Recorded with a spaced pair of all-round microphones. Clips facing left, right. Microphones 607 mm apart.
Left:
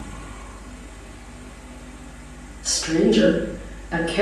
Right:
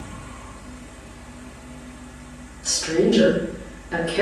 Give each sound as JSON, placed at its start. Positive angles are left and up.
{"t": 0.0, "sound": "a fan", "side_deg": -25, "distance_m": 0.9}
{"t": 2.6, "sound": "a woman speaking", "side_deg": 10, "distance_m": 0.9}